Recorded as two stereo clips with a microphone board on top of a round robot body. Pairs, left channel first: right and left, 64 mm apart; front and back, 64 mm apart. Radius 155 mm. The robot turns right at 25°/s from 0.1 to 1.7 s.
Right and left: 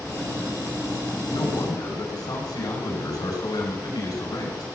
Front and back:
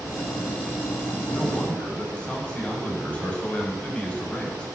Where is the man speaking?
85° right, 5.5 m; by 4.7 s 75° right, 5.5 m.